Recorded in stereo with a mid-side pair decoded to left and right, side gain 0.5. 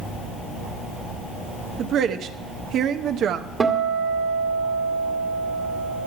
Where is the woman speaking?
65° right, 0.8 m.